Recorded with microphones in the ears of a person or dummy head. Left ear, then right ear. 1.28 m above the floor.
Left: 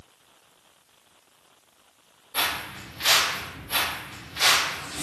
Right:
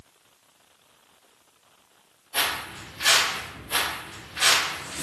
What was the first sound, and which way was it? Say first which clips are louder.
Footsteps: right 1 dB; 30° right (ahead or behind).